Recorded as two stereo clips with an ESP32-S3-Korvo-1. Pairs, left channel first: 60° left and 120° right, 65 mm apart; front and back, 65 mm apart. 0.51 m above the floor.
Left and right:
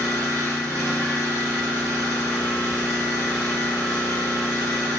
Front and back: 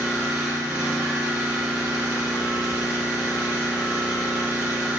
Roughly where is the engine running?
Behind left.